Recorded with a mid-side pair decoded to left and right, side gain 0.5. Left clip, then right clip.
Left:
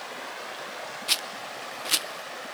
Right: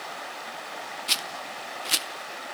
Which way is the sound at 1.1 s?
Straight ahead.